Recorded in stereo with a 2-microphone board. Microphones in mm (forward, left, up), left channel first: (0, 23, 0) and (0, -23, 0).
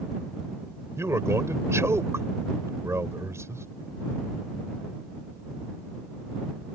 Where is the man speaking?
80° right.